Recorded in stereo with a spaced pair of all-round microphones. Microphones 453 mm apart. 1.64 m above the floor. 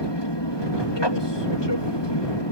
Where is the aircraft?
65° left (ahead or behind).